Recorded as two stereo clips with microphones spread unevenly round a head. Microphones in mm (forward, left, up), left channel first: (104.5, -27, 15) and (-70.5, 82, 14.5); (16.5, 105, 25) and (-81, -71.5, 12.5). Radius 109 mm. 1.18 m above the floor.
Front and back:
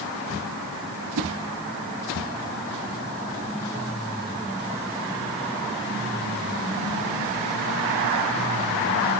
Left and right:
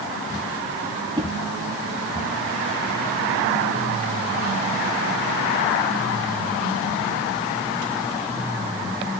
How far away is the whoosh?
About 1.3 m.